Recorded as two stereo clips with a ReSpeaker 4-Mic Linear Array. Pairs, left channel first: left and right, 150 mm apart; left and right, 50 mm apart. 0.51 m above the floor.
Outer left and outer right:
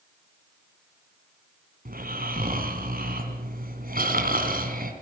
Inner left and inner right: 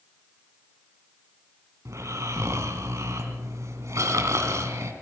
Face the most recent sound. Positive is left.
turn(degrees=-75)  # may be behind; listen again after turning